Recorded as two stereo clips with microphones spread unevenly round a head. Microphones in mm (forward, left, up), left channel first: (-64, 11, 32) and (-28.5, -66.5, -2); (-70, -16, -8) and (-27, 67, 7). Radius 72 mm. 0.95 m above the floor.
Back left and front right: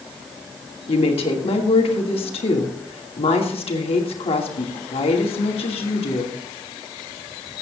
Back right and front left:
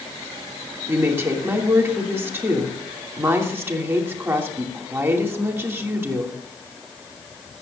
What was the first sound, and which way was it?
A woman speaking, 130° left.